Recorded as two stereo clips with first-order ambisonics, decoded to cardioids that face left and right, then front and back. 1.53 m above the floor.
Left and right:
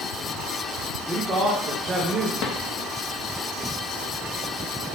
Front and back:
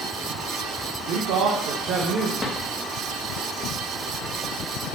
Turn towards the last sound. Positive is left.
turn(degrees=80)